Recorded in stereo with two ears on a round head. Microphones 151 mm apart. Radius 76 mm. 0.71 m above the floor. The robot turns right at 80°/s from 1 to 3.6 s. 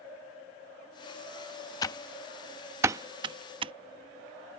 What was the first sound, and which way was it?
Typing on a keyboard, 25° left (ahead or behind).